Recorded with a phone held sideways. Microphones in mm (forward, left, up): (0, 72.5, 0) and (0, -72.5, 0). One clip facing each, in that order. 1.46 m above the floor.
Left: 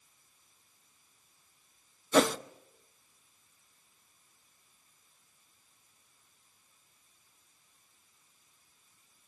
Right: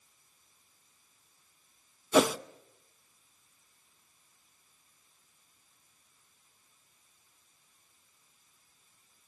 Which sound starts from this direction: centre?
A whoosh, at 2.1 s.